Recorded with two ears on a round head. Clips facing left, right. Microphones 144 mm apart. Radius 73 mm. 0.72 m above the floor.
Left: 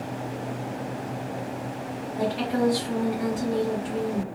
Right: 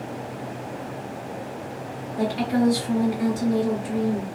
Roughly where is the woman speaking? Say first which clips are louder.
Right 3 dB; right.